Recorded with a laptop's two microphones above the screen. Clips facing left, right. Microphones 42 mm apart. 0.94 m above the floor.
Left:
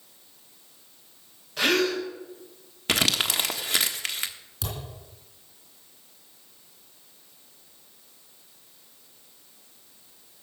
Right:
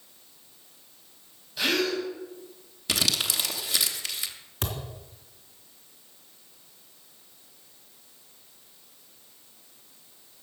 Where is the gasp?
65° left (ahead or behind), 4 m.